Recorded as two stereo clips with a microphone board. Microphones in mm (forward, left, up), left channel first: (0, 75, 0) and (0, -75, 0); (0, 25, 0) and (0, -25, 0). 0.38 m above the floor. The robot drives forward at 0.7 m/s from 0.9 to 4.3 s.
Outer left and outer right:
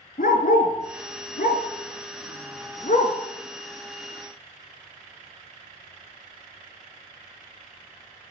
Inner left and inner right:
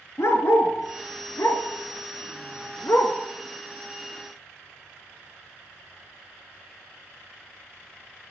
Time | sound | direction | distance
0.2 | a dog barking | 75° left (ahead or behind) | 1.5 m